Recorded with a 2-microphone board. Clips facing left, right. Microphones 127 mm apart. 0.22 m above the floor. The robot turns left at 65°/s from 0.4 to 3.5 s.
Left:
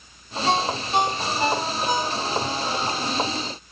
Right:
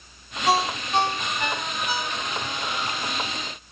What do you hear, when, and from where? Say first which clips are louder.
0.5 s a ringtone: even; 10° right (ahead or behind), 0.8 m; by 2.5 s 40° left (ahead or behind), 0.8 m